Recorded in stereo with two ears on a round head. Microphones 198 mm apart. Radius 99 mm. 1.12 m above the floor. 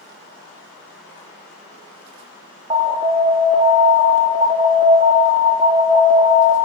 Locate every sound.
2.7 s an alarm: 25° right (ahead or behind), 3 m